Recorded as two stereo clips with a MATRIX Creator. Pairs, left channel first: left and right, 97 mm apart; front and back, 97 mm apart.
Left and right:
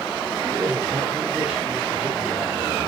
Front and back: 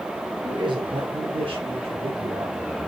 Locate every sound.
0.4 s a man speaking: 145° right, 2.5 m; by 2.6 s 175° left, 3.5 m